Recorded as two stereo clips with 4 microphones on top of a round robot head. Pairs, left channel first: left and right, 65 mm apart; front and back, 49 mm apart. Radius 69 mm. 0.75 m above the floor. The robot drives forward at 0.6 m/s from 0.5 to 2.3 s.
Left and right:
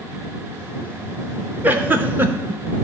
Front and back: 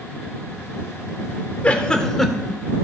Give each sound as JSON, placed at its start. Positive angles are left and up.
{"t": 1.6, "sound": "a giggle", "azimuth_deg": -45, "distance_m": 0.9}